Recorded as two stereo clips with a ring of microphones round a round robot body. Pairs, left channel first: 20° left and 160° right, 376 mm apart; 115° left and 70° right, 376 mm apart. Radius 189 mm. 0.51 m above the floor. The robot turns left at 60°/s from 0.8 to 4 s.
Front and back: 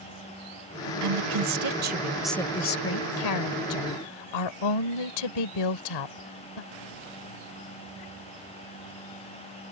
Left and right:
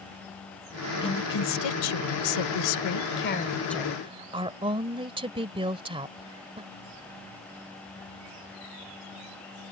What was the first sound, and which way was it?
A woman speaking, 170° right.